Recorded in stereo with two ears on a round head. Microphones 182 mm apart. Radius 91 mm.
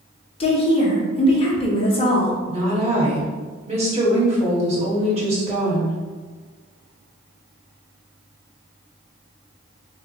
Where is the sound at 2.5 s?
35° right (ahead or behind), 1.6 m.